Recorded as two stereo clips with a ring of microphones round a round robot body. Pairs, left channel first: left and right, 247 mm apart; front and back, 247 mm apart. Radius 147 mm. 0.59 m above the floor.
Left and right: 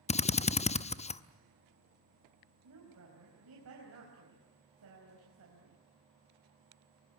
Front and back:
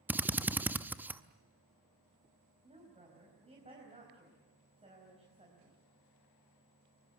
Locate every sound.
0.1 s a drill: 105° left, 0.8 m
2.6 s a woman speaking: 115° right, 4.5 m